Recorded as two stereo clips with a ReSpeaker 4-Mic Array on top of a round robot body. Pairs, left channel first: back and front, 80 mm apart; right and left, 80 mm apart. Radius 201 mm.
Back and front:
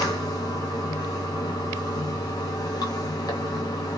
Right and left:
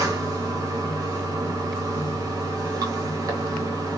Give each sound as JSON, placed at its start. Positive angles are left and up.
{"t": 0.0, "sound": "running water", "azimuth_deg": 135, "distance_m": 0.8}